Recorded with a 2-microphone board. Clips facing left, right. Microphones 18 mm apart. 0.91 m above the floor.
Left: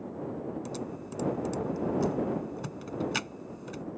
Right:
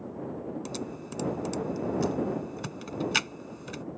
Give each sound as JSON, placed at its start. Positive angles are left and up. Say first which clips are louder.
{"t": 0.7, "sound": "typing on a keyboard", "louder": "right 1 dB", "side_deg": -35}